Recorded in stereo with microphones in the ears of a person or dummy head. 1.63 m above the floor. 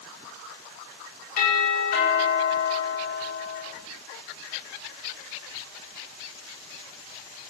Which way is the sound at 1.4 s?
55° left (ahead or behind).